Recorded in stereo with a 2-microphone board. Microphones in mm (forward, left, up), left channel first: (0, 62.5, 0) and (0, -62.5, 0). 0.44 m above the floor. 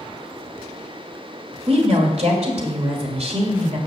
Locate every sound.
1.7 s a woman speaking: 55° right (ahead or behind), 1.9 m